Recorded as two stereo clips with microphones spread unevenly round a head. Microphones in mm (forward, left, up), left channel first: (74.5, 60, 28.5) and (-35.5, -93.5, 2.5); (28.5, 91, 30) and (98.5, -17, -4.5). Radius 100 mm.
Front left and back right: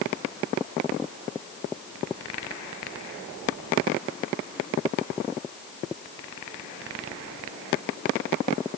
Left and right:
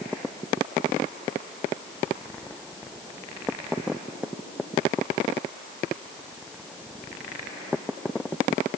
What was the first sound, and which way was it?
Only background noise.